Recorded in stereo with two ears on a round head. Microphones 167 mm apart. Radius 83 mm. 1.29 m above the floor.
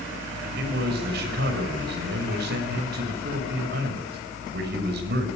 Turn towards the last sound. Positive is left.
turn(degrees=-60)  # may be behind; listen again after turning